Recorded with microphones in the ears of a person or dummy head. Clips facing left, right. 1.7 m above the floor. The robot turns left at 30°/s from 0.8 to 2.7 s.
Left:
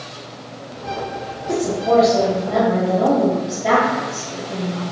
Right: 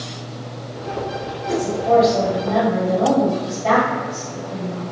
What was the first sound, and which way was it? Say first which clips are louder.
A woman speaking: even; 160° right.